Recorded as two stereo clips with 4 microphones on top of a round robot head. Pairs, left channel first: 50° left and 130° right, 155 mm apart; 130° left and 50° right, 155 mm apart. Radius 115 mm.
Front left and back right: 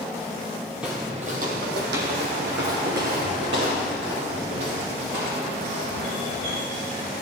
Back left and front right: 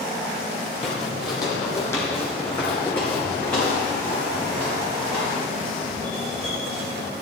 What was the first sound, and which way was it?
Footsteps, 150° left.